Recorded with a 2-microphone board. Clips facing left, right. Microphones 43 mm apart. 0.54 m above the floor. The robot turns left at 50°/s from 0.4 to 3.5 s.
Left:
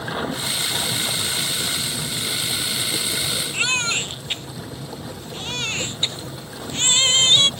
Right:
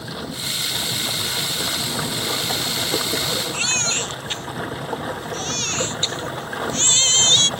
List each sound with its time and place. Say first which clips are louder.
0.0 s running water: left 4 dB; 30° left; by 7.6 s 125° right
3.5 s a baby crying: left 2 dB; 20° left (ahead or behind)